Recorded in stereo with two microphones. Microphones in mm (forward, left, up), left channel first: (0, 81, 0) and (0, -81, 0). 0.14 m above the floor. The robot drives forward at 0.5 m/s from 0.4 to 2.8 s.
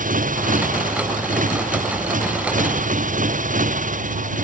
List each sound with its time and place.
0.0 s a motorcycle: 55° right (ahead or behind)